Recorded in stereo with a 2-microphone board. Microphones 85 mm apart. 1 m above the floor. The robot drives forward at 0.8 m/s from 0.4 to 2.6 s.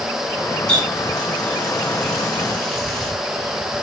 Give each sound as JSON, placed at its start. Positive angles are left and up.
{"t": 0.7, "sound": "a running tap", "side_deg": 10, "distance_m": 5.5}